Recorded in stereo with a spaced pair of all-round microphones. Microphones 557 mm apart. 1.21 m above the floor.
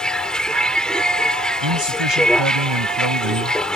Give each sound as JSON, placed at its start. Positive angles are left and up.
{"t": 0.0, "sound": "a vehicle", "side_deg": 0}
{"t": 1.6, "sound": "a man speaking", "side_deg": -55}